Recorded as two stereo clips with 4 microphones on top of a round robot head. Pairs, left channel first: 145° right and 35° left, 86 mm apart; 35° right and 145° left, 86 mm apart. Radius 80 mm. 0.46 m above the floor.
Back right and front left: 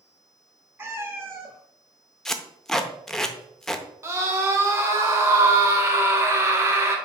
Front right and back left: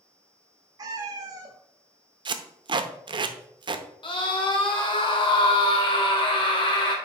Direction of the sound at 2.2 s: 130° left.